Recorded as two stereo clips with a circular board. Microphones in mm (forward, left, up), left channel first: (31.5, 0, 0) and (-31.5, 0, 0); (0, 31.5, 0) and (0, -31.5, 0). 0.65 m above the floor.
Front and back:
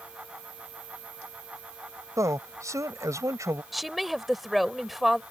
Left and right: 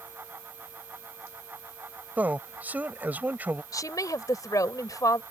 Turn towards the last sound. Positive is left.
turn(degrees=90)